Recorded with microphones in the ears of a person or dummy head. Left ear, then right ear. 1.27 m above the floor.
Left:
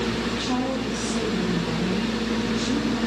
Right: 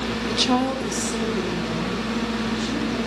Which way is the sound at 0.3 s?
45° right (ahead or behind).